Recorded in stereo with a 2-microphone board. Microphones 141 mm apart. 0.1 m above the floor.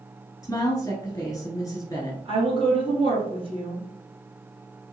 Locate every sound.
0.4 s a woman speaking: 25° left (ahead or behind), 1.4 m
2.2 s a woman speaking: 35° right (ahead or behind), 1.9 m